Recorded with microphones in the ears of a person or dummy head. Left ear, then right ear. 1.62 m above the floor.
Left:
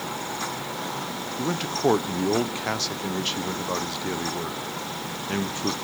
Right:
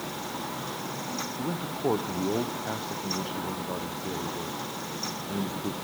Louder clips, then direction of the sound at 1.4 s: Left 9 dB; 65° left (ahead or behind).